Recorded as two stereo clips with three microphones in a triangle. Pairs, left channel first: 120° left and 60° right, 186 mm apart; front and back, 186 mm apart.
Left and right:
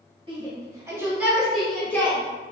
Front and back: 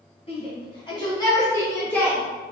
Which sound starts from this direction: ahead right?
A shout, at 0.3 s.